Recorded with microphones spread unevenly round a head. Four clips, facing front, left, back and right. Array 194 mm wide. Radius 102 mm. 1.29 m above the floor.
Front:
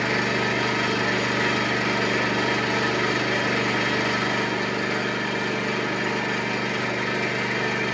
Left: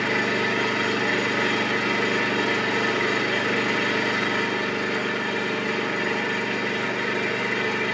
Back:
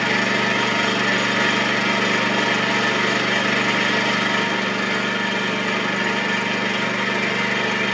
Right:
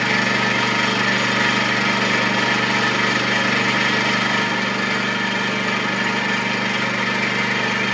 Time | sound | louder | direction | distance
0.0 | an engine running | right 4 dB, back 3 dB | 115° right | 5 m